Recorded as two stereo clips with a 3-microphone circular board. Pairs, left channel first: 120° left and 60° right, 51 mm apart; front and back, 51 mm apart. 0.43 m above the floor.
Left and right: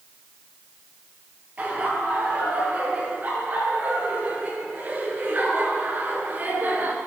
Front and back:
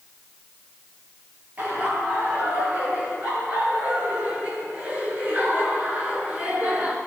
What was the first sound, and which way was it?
Laughter, 120° right.